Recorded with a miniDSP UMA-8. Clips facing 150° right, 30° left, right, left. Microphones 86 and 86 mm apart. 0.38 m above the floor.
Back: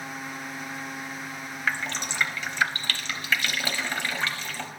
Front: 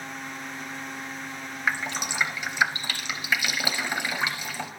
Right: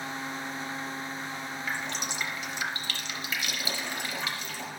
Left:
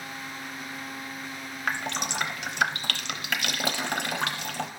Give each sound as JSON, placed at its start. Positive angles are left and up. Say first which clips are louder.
{"t": 1.7, "sound": "dripping", "louder": "front 1 dB, left 6 dB", "azimuth_deg": 105, "distance_m": 0.8}